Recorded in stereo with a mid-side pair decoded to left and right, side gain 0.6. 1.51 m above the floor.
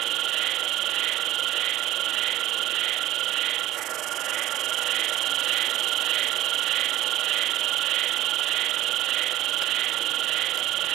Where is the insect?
60° right, 1.2 m.